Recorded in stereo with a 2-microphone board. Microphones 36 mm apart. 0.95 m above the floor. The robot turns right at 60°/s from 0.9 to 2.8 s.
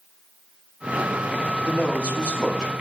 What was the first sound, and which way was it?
A man speaking, 115° left.